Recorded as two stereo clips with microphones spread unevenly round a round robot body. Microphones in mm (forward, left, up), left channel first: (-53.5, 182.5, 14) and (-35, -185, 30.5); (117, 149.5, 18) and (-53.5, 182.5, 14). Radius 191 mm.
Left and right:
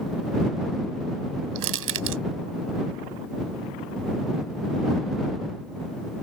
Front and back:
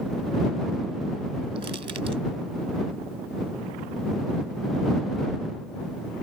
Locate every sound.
1.6 s crushing: 130° right